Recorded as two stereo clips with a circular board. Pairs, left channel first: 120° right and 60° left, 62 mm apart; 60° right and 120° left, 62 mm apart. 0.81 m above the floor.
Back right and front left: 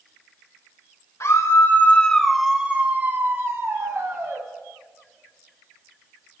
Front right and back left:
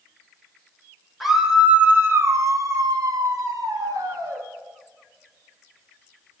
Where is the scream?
150° right, 1.5 m; by 4.4 s 100° left, 3 m.